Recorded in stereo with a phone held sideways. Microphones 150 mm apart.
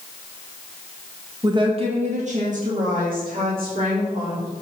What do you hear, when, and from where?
1.4 s a woman speaking: 25° right (ahead or behind), 1.1 m; by 4.5 s 75° right (ahead or behind), 3.5 m